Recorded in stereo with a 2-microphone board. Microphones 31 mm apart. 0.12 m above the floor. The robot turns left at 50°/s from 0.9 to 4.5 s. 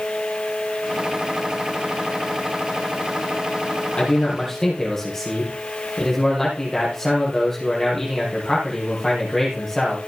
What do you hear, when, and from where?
3.9 s a man speaking: 35° left (ahead or behind), 4.5 m; by 10.0 s 10° left (ahead or behind), 4.5 m